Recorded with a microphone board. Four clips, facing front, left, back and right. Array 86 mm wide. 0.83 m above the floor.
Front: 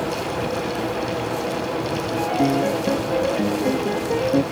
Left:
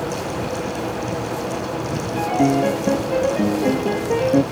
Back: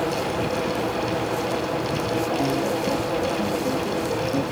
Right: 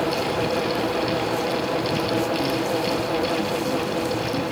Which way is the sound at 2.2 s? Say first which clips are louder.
Left 5 dB, front 6 dB; 65° left.